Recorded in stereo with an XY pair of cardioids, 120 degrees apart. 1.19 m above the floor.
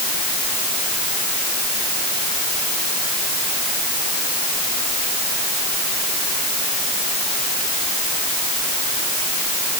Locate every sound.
Only background noise.